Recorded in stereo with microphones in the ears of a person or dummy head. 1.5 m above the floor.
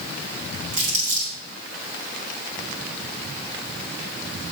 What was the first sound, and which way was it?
Crumpling, 50° right (ahead or behind).